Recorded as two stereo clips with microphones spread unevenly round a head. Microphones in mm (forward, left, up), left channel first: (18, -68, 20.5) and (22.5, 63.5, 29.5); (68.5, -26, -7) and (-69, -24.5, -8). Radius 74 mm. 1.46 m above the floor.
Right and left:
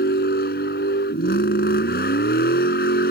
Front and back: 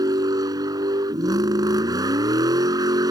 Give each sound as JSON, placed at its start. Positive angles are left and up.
{"t": 0.0, "sound": "a vehicle", "azimuth_deg": -115}